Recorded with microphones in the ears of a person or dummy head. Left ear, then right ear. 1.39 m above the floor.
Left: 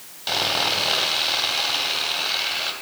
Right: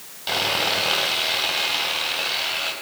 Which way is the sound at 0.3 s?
10° left (ahead or behind).